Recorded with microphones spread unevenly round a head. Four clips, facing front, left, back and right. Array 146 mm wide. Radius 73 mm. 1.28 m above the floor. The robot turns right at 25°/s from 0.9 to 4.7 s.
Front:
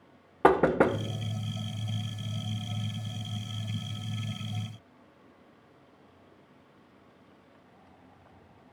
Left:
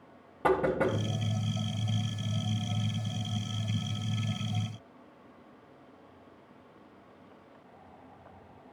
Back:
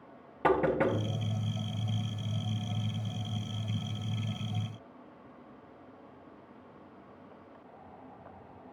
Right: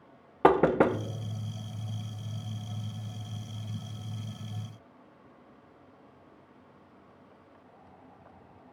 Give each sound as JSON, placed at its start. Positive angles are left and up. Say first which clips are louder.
{"t": 0.4, "sound": "knocking", "louder": "right 5 dB, front 5 dB", "azimuth_deg": -55, "distance_m": 0.6}